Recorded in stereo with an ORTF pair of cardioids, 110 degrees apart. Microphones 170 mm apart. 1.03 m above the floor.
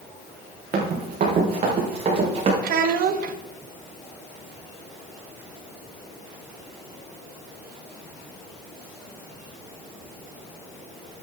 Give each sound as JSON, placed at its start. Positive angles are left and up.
{"t": 0.7, "sound": "running footsteps", "azimuth_deg": -60, "distance_m": 3.5}
{"t": 2.6, "sound": "a child speaking", "azimuth_deg": -60, "distance_m": 0.9}